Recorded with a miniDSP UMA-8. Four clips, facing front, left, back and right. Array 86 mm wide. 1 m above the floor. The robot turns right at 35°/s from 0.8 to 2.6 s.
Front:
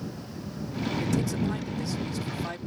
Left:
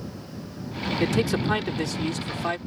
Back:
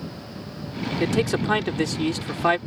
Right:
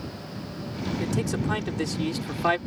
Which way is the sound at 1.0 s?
150° left.